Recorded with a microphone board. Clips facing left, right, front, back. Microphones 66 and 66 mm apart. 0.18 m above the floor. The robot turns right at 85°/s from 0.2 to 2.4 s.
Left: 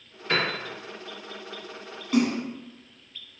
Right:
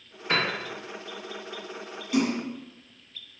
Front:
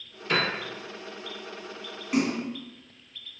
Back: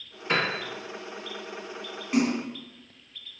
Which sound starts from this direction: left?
A splash, at 2.1 s.